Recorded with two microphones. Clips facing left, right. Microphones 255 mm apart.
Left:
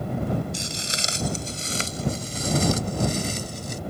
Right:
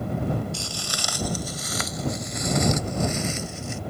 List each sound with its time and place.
0.5 s footsteps: 20° left (ahead or behind); by 3.8 s 40° left (ahead or behind)